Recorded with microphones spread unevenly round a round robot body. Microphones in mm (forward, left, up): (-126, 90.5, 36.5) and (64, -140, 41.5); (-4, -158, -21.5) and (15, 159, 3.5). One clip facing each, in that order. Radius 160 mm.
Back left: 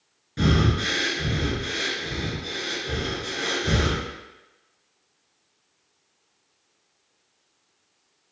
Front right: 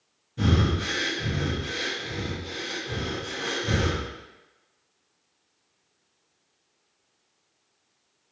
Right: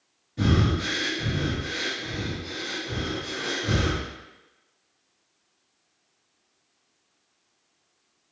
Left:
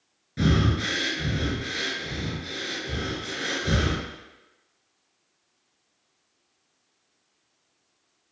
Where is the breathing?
115° left, 1.6 m.